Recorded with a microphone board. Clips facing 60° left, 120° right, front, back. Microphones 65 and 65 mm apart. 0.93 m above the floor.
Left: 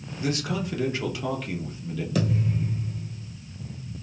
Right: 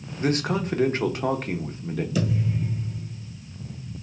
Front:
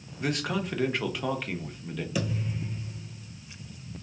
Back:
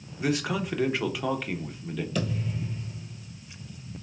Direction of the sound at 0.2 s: 95° right.